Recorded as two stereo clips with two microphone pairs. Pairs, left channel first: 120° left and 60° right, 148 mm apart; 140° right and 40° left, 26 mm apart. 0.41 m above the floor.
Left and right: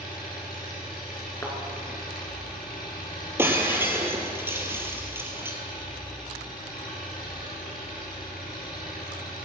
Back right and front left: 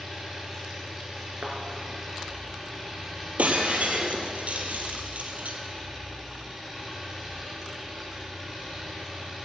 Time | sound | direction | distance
0.0 | an engine running | 115° left | 5.5 m
1.4 | a thud | 50° left | 3 m
3.4 | breaking glass | 15° left | 2 m